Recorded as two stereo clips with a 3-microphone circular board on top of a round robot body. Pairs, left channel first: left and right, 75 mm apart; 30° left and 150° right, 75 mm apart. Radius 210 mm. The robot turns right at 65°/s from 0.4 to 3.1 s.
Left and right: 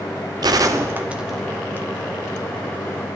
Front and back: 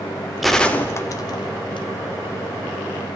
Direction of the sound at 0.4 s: 60° right.